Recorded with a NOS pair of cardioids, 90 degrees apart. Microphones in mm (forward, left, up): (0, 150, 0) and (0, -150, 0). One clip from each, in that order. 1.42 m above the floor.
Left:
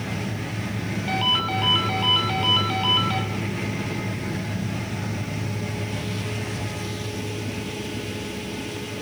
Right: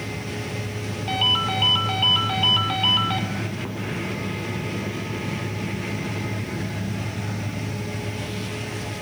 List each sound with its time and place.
1.1 s a ringtone: 15° right, 2.5 m